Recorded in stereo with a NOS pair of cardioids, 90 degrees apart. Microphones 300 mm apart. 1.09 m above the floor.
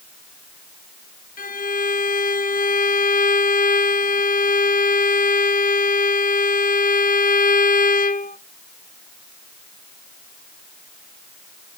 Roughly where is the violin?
Ahead left.